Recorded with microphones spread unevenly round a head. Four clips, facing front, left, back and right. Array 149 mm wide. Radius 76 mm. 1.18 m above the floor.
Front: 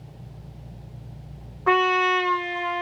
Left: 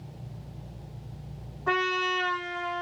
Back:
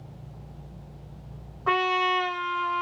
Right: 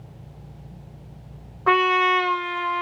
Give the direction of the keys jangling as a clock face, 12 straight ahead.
I don't hear keys jangling.